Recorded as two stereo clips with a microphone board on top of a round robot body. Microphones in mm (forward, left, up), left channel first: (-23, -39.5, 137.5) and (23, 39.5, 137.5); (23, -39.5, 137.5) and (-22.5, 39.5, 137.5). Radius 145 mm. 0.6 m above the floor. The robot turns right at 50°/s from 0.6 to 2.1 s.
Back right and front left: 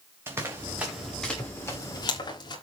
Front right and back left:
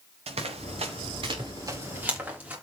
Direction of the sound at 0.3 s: 125° left.